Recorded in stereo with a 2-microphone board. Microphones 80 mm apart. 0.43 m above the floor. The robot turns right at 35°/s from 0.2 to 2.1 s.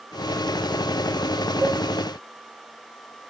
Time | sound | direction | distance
1.6 | a cowbell | 35° right (ahead or behind) | 1.5 m